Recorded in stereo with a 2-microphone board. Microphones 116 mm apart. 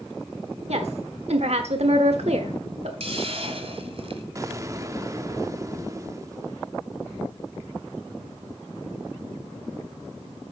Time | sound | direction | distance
0.7 | a woman speaking | 65° right (ahead or behind) | 1.3 m
3.0 | a hiss | 55° right (ahead or behind) | 1.7 m
4.3 | an explosion | 30° right (ahead or behind) | 0.8 m